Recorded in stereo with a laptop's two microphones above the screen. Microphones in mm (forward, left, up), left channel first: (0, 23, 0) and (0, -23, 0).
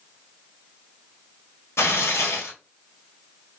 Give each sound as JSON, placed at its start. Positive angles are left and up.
{"t": 1.8, "sound": "tearing paper", "side_deg": 80, "distance_m": 1.2}